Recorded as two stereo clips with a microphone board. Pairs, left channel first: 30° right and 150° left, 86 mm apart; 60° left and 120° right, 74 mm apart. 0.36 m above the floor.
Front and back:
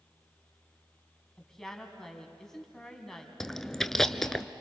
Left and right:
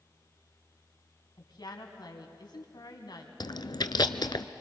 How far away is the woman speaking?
About 2.5 m.